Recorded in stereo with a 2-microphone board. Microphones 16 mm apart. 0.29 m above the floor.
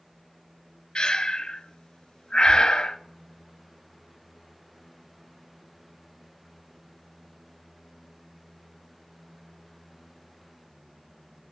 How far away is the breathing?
About 0.6 m.